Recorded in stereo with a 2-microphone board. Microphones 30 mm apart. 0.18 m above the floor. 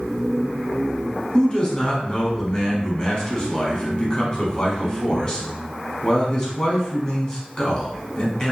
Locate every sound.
1.3 s a man speaking: 25° left (ahead or behind), 1.2 m